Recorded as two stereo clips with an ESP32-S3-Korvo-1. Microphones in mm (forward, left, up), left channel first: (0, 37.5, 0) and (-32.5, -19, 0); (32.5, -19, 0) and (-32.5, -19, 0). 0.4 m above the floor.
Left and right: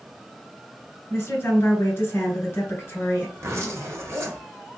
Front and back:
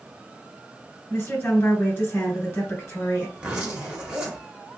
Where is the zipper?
115° right, 1.1 m.